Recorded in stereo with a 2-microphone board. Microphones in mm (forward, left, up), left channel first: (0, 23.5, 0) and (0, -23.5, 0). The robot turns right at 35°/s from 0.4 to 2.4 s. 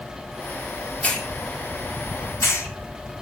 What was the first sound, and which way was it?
A hiss, 30° left (ahead or behind).